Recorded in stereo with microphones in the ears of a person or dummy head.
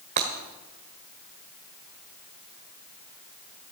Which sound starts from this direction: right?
Breaking glass, at 0.2 s.